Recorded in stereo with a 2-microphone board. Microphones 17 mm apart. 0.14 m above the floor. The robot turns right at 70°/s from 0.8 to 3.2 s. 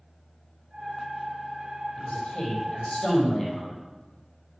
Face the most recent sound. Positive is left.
turn(degrees=135)